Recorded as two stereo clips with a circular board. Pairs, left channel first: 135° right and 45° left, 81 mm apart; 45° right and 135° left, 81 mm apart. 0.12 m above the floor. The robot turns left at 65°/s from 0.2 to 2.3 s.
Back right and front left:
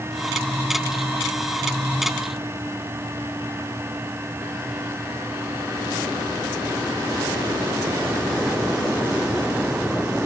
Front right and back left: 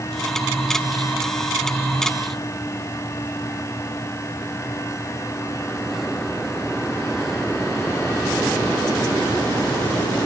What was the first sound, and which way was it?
Only background noise.